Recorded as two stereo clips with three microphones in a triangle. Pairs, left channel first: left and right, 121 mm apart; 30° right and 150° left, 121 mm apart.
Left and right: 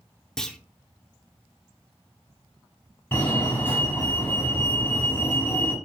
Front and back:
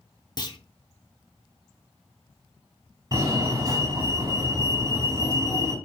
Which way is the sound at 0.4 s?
10° left.